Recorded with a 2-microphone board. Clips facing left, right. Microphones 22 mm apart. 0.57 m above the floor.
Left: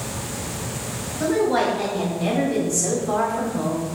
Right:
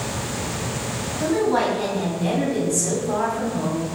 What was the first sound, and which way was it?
A woman speaking, 45° left (ahead or behind).